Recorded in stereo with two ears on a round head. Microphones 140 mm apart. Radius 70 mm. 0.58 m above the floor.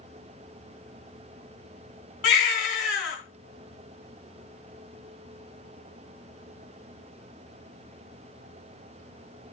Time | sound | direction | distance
2.2 | a baby crying | 80° left | 3.5 m